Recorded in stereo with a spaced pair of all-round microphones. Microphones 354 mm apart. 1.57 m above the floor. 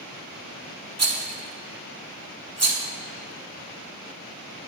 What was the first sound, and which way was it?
A rattle, 45° right (ahead or behind).